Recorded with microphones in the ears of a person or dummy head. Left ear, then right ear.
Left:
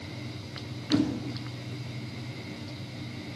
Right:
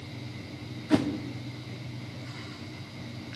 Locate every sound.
0.9 s a whoosh: 40° right (ahead or behind), 0.5 m